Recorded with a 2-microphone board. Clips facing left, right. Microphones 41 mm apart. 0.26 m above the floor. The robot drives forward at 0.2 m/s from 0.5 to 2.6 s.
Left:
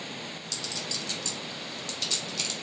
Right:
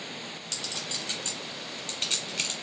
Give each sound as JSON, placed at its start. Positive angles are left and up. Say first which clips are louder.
{"t": 0.5, "sound": "a clink", "louder": "even", "side_deg": -35, "distance_m": 1.1}